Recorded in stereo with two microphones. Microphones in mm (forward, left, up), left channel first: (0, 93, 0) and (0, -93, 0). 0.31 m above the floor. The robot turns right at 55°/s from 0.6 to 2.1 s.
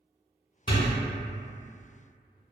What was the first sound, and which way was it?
A door slam, 25° left (ahead or behind).